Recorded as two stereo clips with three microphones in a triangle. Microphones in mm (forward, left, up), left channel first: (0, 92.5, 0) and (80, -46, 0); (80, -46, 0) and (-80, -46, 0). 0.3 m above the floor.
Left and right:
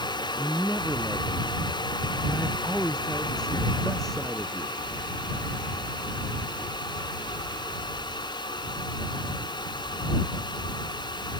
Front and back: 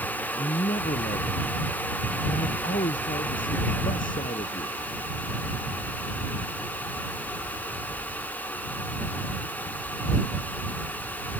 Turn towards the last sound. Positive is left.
turn(degrees=30)